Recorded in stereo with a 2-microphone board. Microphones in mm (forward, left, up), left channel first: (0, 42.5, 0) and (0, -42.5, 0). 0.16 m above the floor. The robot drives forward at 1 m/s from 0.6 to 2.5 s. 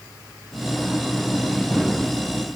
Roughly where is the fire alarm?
No fire alarm in this recording.